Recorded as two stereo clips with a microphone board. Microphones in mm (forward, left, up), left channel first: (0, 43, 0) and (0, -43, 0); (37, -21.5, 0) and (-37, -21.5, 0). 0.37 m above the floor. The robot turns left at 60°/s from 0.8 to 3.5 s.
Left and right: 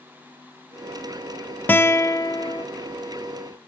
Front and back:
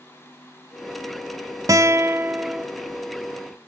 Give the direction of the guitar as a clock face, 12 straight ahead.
7 o'clock.